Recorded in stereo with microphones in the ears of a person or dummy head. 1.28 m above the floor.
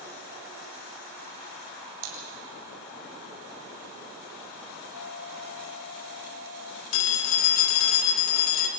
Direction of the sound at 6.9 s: 65° left (ahead or behind).